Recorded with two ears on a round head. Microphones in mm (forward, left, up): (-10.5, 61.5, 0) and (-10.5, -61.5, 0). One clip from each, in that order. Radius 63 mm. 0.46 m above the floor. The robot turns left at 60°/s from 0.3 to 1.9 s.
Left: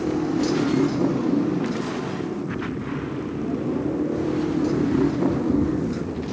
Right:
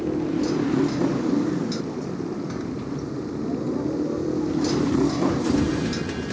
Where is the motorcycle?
20° left; by 6.3 s 75° right.